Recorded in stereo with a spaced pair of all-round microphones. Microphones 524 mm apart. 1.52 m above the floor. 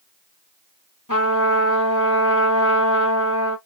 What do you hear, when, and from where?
1.1 s a trumpet: 35° left (ahead or behind), 1.6 m